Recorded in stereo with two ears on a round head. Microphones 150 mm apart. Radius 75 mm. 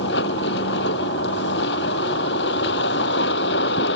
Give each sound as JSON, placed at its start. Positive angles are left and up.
{"t": 0.0, "sound": "a vehicle", "side_deg": 75}